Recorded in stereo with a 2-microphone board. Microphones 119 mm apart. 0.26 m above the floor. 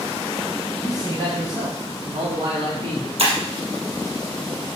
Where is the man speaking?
35° right (ahead or behind), 1.6 m; by 3.1 s 65° right (ahead or behind), 2.5 m.